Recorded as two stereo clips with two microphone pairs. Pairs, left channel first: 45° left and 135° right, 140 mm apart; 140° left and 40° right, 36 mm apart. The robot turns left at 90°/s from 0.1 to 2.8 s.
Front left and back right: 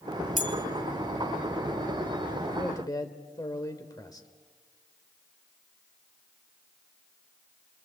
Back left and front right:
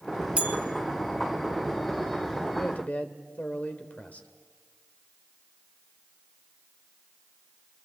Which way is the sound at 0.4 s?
25° left.